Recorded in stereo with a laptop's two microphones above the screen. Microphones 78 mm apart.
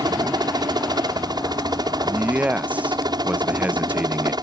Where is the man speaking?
15° right (ahead or behind).